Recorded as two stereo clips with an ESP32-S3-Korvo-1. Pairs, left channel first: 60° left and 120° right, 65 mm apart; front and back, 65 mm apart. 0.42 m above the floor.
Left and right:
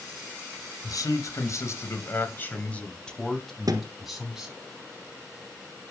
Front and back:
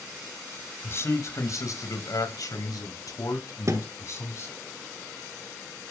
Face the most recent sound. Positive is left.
turn(degrees=-140)